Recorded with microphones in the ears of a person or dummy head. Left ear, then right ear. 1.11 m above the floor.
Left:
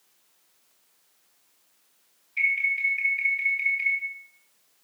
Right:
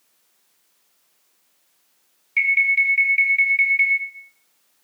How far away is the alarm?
About 5.5 m.